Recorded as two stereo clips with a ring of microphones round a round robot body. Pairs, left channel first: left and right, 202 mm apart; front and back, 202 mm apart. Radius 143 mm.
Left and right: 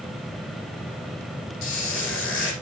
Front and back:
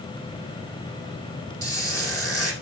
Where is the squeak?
75° left, 4.5 m.